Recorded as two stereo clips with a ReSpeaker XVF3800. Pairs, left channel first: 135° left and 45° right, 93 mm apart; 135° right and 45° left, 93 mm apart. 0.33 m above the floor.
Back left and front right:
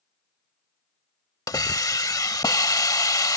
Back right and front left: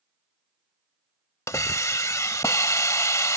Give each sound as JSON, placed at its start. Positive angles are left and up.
{"t": 1.5, "sound": "a hiss", "azimuth_deg": 175}